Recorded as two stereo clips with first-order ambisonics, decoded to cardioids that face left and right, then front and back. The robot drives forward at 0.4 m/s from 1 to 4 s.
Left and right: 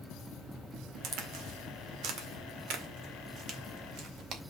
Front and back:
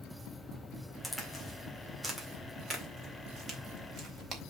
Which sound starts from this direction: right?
A crack, at 1.0 s.